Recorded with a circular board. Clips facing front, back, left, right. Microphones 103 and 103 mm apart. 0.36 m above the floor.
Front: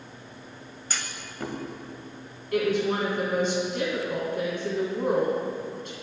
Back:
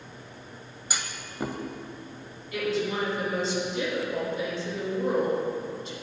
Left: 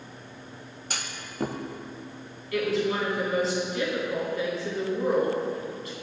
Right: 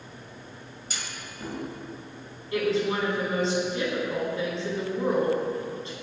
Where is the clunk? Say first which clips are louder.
Back 1 dB, left 2 dB; 105° left, 0.7 m.